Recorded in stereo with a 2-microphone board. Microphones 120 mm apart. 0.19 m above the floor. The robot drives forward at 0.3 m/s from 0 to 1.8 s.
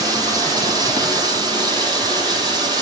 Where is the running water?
30° right (ahead or behind), 6 m; by 2.8 s 35° right (ahead or behind), 5.5 m.